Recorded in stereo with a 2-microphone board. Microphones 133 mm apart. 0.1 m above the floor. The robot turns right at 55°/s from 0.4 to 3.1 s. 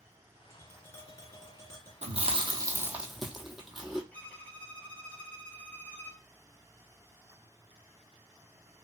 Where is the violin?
10° left (ahead or behind), 0.6 m.